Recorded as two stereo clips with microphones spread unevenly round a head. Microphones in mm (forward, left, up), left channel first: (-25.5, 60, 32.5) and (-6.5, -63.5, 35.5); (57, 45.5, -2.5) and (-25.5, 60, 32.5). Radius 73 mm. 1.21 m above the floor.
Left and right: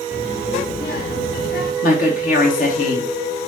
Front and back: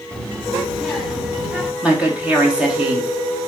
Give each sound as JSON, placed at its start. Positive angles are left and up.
{"t": 0.1, "sound": "a child speaking", "azimuth_deg": 75, "distance_m": 1.6}
{"t": 1.8, "sound": "a woman speaking", "azimuth_deg": 90, "distance_m": 3.0}